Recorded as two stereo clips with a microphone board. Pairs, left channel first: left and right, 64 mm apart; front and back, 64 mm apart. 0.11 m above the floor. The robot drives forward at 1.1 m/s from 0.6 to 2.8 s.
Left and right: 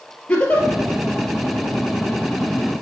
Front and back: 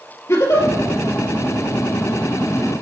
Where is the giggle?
25° left, 1.8 m; by 0.7 s 30° left, 1.7 m.